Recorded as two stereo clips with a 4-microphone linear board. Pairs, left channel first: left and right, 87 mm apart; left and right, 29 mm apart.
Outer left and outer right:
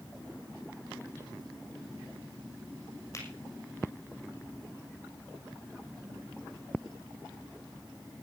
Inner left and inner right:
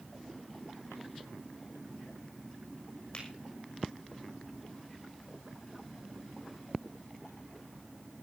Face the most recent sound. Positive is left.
turn(degrees=35)  # may be behind; listen again after turning